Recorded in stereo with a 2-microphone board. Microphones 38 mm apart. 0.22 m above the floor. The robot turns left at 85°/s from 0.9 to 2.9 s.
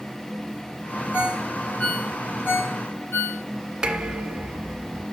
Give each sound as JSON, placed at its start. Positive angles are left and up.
{"t": 1.1, "sound": "a ringtone", "side_deg": -40, "distance_m": 5.0}
{"t": 3.8, "sound": "dishes clattering", "side_deg": -15, "distance_m": 1.5}